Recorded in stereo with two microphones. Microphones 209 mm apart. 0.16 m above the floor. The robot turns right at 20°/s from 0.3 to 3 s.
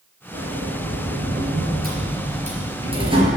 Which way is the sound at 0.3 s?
80° right.